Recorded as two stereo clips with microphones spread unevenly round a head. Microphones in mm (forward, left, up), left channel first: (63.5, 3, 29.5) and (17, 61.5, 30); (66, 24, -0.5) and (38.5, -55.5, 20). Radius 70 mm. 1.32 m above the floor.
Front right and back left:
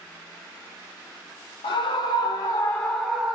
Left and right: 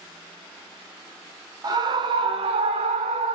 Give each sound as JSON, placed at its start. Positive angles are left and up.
{"t": 1.6, "sound": "a scream", "azimuth_deg": -70, "distance_m": 0.9}